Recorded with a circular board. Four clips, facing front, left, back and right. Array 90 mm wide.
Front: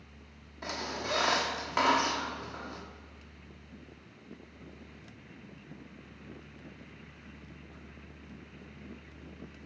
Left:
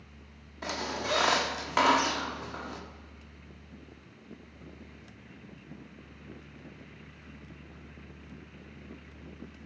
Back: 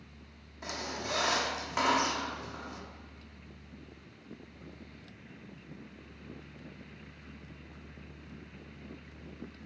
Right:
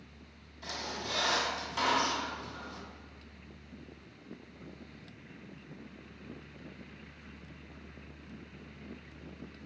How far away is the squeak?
About 0.8 m.